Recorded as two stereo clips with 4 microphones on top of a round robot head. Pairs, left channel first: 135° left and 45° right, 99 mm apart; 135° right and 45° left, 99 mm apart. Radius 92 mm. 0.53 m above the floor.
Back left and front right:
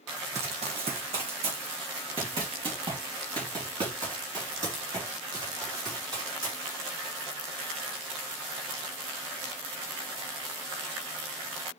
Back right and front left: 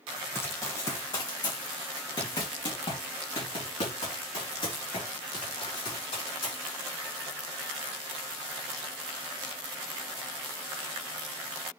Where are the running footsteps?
65° right, 1.6 m; by 6.7 s 100° right, 6 m.